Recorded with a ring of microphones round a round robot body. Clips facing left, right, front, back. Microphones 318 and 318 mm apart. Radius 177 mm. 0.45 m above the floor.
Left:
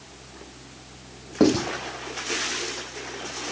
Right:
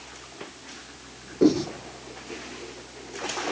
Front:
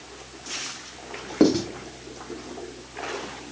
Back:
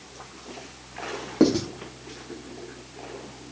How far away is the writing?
About 3 m.